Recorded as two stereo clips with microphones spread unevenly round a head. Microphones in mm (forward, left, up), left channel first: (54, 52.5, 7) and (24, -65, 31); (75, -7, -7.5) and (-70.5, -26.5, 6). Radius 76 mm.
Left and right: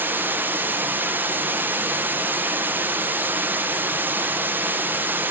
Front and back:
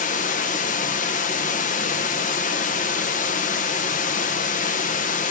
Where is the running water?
30° right, 0.8 m.